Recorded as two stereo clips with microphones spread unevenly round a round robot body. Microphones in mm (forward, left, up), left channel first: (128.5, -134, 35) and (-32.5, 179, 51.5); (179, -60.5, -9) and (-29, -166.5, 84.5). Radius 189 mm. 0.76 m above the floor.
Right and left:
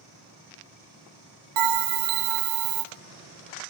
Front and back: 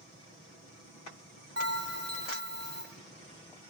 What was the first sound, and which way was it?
A bell, 155° left.